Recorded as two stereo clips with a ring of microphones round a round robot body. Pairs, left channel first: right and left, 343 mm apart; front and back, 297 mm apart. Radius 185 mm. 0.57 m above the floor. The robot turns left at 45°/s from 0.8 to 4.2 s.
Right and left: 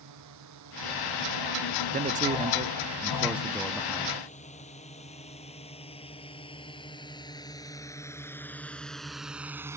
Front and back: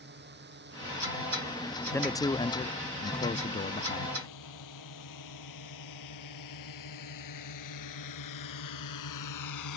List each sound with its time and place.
0.0 s a drone: 130° left; by 9.8 s 10° left
1.9 s a man speaking: 70° left; by 4.2 s 30° right